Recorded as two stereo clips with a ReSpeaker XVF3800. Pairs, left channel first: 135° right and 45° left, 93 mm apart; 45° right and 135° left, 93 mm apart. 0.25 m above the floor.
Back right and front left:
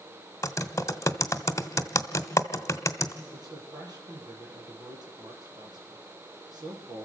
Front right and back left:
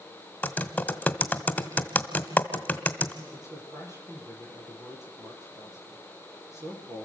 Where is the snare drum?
No snare drum in this recording.